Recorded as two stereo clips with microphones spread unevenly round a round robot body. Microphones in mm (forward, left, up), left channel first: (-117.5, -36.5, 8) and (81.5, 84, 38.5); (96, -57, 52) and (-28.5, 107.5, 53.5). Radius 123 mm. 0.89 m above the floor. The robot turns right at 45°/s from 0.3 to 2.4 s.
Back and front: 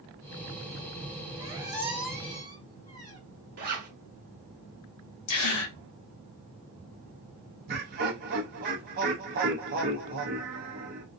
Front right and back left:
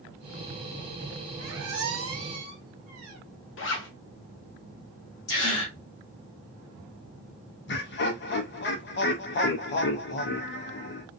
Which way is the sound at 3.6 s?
25° right.